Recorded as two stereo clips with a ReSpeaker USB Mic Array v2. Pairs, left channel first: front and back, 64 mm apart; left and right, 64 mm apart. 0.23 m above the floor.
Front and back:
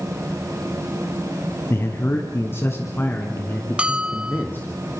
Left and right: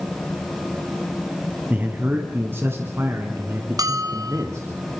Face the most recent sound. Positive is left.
turn(degrees=-105)